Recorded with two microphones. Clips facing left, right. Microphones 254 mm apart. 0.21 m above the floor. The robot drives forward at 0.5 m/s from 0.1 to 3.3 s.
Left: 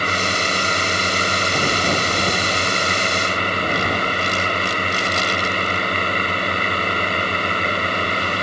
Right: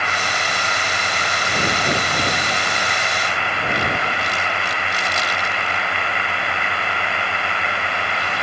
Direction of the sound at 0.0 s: 40° left (ahead or behind).